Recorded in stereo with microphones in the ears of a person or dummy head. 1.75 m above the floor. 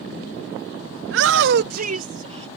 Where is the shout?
65° right (ahead or behind); by 2.5 s 30° right (ahead or behind).